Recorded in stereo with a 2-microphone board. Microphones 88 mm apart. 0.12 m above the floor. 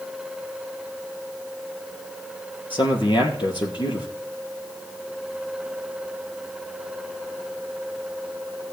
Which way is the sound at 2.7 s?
65° left (ahead or behind).